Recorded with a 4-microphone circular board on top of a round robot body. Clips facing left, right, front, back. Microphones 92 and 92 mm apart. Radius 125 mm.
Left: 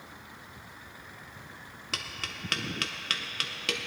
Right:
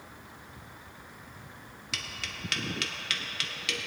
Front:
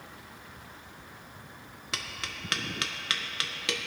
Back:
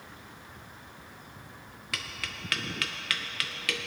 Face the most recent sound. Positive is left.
turn(degrees=60)